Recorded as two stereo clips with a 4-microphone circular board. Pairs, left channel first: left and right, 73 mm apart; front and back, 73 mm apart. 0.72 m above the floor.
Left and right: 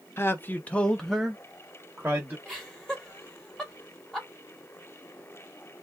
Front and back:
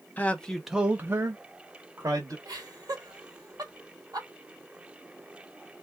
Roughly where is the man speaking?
Ahead left.